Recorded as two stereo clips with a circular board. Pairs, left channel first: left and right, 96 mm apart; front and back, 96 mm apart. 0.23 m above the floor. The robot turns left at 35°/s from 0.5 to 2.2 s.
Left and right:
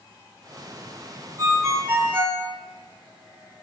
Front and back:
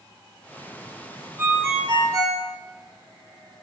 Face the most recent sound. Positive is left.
turn(degrees=-150)